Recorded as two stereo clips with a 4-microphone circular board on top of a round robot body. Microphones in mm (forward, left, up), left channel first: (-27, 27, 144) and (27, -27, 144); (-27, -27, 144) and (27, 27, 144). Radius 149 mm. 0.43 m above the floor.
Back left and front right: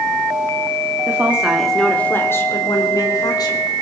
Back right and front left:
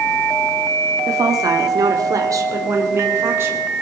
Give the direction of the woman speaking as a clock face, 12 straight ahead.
12 o'clock.